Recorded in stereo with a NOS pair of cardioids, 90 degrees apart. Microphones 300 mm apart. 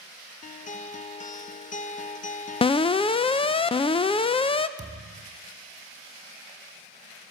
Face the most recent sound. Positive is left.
turn(degrees=-15)